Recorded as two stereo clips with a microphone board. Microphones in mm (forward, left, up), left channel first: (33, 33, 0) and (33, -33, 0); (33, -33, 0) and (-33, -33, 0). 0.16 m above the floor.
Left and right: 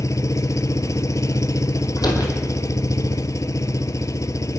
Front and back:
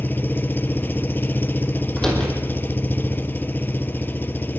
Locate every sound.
0.0 s an engine running: 55° left, 0.8 m
2.0 s a door slam: 80° left, 4.5 m